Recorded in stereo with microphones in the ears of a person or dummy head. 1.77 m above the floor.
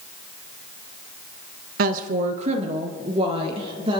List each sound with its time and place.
1.8 s a woman speaking: 55° right (ahead or behind), 0.7 m; by 4.0 s 35° right (ahead or behind), 3 m